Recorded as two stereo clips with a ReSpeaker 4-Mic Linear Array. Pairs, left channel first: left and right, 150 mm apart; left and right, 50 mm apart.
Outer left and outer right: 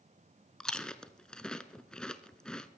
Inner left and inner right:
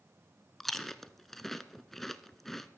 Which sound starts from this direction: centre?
Chewing, at 0.6 s.